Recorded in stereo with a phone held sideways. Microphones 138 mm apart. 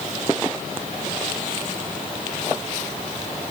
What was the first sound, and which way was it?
Only background noise.